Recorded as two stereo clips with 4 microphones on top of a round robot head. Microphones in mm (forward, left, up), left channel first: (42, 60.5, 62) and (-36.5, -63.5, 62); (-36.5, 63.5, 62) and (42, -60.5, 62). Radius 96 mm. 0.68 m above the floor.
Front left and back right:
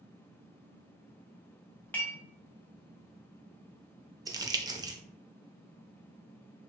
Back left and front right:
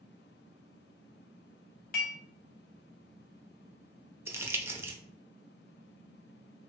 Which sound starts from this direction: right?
Crumpling, at 4.3 s.